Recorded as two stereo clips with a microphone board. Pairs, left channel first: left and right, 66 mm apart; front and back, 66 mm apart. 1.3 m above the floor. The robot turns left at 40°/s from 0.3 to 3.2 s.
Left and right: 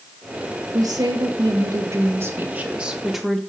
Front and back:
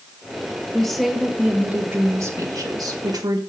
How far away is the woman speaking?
About 1.9 m.